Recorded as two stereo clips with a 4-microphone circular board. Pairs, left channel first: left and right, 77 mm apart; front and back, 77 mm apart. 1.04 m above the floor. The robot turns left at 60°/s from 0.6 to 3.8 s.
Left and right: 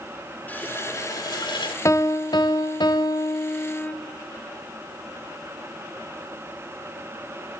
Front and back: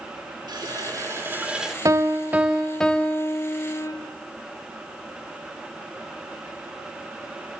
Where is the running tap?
160° left, 1.7 m; by 1.8 s 90° left, 1.7 m.